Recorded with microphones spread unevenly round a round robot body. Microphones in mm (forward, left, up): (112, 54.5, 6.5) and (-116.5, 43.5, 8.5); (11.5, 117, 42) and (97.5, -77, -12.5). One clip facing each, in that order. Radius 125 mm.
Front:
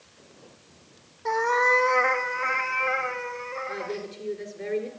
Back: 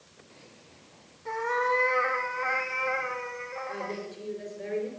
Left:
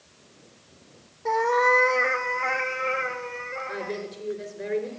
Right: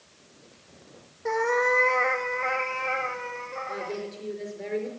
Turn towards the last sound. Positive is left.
turn(degrees=35)